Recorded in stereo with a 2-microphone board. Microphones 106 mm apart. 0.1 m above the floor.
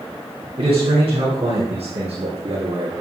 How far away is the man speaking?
About 3.5 m.